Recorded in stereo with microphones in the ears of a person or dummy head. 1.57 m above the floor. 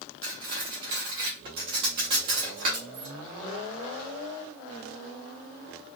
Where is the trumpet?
No trumpet in this recording.